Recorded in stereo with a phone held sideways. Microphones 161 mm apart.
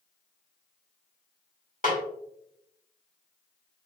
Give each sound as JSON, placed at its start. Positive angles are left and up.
{"t": 1.8, "sound": "a snare drum", "side_deg": 55, "distance_m": 2.5}